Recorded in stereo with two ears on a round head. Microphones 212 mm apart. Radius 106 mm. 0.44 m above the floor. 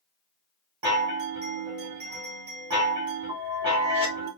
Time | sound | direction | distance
0.8 | a chime | 20° right (ahead or behind) | 1.5 m